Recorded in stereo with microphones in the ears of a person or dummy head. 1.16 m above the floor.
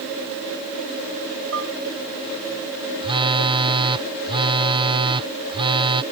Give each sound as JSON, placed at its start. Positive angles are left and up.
{"t": 1.5, "sound": "dishes clattering", "side_deg": -75}
{"t": 3.0, "sound": "a phone buzzing", "side_deg": -20}